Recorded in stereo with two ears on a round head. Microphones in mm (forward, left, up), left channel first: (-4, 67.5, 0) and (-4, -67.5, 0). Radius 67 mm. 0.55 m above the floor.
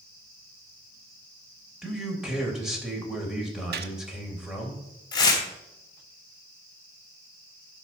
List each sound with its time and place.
1.8 s a man speaking: 5° right (ahead or behind), 3 m
3.7 s a gunshot: 70° right (ahead or behind), 1.0 m
5.1 s tearing paper: 30° left (ahead or behind), 2.5 m